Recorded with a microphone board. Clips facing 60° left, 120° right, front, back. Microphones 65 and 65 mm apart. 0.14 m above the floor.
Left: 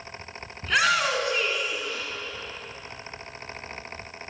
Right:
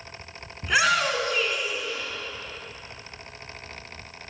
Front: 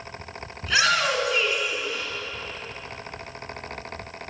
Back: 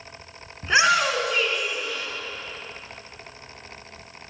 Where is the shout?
175° left, 1.5 m; by 2.1 s 45° left, 1.9 m.